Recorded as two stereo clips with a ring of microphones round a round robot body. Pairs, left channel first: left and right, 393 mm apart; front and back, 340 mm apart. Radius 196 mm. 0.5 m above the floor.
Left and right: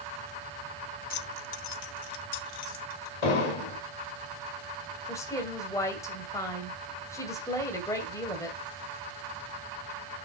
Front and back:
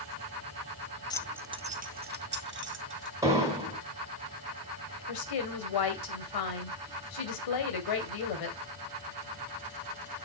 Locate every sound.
1.1 s keys jangling: 60° left, 0.5 m; by 3.1 s 125° left, 2 m
3.2 s an explosion: 100° left, 3 m
5.1 s a woman speaking: 10° left, 2.5 m